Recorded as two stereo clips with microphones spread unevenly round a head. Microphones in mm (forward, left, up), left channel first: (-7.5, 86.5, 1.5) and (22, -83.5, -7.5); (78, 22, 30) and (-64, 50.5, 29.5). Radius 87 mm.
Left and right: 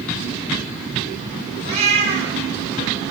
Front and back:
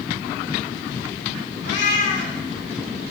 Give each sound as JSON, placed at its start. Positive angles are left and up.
{"t": 1.6, "sound": "a cat meowing", "azimuth_deg": -30, "distance_m": 2.0}